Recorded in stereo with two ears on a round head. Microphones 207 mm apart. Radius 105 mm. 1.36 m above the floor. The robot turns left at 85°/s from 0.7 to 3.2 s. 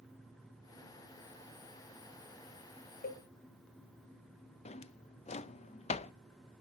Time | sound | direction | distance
3.0 | a cowbell | 40° left (ahead or behind) | 1.4 m
4.7 | a drawer | 30° left (ahead or behind) | 0.5 m